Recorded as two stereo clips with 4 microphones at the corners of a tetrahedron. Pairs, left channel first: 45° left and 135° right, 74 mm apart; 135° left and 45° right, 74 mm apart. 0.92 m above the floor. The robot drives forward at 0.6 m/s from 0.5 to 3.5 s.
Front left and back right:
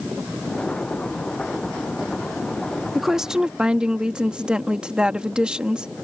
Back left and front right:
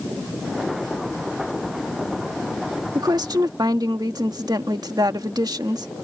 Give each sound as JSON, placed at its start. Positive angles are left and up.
{"t": 3.0, "sound": "a woman speaking", "azimuth_deg": -50}